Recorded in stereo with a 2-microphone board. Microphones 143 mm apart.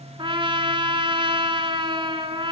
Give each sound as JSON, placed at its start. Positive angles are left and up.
{"t": 0.2, "sound": "a trumpet", "side_deg": -35, "distance_m": 0.6}